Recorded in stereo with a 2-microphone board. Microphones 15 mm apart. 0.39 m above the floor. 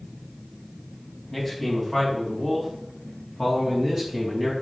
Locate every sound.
1.3 s a man speaking: 10° left (ahead or behind), 3.5 m; by 4.5 s 20° right (ahead or behind), 3.5 m